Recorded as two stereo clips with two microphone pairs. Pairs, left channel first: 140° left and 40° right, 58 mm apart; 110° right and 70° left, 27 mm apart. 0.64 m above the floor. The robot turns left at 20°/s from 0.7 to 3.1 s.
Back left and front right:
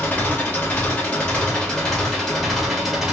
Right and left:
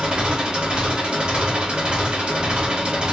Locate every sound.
0.0 s an engine running: 90° left, 1.0 m; by 3.1 s 40° left, 1.0 m